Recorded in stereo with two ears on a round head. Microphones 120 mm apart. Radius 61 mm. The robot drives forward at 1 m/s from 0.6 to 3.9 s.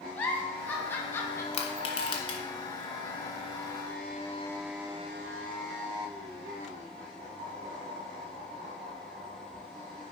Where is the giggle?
15° left (ahead or behind), 1.8 m; by 1.4 s 20° left (ahead or behind), 1.0 m.